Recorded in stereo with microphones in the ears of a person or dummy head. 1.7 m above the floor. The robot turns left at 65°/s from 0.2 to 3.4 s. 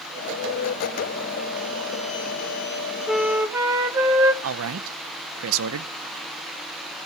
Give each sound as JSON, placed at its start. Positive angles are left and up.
{"t": 3.1, "sound": "a flute", "side_deg": 5, "distance_m": 1.4}
{"t": 4.4, "sound": "a man speaking", "side_deg": -80, "distance_m": 0.9}